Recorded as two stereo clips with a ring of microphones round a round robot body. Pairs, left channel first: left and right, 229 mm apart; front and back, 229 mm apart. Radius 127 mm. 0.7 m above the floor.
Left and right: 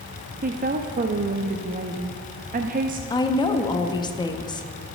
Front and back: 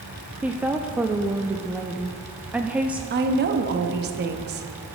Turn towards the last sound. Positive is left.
turn(degrees=155)